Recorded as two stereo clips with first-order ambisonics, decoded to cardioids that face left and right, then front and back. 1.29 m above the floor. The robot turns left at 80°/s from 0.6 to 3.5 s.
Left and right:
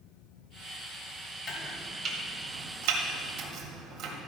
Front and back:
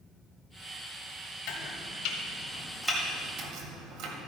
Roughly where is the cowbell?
No cowbell in this recording.